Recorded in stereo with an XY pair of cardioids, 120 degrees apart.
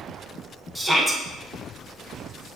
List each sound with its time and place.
0.8 s a shout: 5° right, 0.5 m